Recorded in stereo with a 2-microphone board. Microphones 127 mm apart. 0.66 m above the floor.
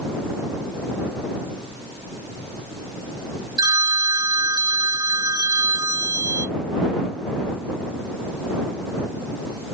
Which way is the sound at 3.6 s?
35° right (ahead or behind).